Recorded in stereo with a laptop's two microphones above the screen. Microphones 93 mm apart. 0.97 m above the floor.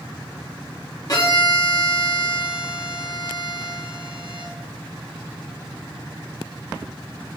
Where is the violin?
45° left (ahead or behind), 1.6 m.